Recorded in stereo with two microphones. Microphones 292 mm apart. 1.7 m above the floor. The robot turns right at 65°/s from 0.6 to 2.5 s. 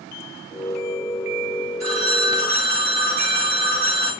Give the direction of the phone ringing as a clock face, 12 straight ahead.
9 o'clock.